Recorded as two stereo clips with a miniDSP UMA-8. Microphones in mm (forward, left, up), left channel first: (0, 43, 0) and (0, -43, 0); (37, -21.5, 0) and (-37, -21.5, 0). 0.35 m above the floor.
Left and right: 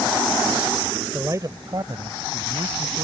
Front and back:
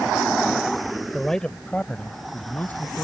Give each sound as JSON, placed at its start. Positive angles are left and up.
{"t": 1.1, "sound": "a man speaking", "azimuth_deg": -80}